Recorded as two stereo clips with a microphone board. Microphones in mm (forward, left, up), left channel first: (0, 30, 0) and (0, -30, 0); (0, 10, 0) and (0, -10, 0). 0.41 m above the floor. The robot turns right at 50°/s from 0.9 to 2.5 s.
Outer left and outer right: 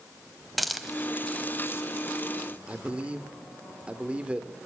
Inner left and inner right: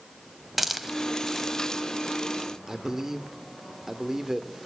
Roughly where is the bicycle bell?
I don't hear a bicycle bell.